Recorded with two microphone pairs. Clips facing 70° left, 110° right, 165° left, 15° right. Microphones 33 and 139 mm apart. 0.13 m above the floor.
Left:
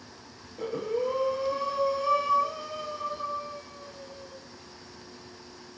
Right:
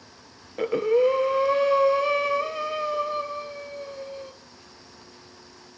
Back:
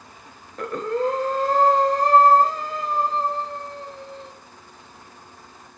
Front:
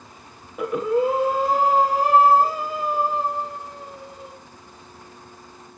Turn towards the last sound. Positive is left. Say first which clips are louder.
# right 9 dB, front 3 dB
turn(degrees=-95)